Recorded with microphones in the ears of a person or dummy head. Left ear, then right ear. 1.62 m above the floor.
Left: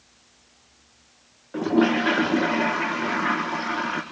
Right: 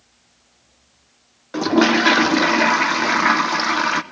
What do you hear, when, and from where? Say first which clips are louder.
1.5 s a toilet flushing: right 5 dB; 80° right, 1.2 m